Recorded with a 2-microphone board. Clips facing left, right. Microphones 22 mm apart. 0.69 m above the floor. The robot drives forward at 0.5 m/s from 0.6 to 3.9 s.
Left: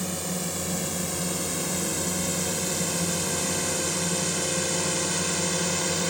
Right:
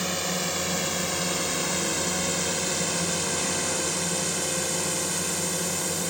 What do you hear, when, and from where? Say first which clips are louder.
0.0 s a drone: right 3 dB; 35° right (ahead or behind); by 6.1 s 15° left (ahead or behind)